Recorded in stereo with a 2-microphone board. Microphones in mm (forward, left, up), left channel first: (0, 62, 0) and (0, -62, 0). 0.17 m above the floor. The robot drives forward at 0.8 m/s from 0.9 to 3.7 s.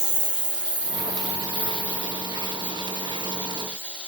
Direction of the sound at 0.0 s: 5° right (ahead or behind).